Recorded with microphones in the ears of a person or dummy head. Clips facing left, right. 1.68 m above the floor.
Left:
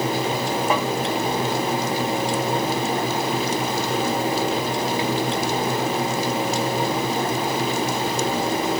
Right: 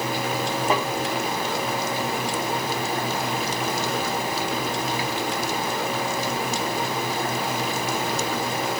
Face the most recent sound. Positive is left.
turn(degrees=5)  # may be behind; listen again after turning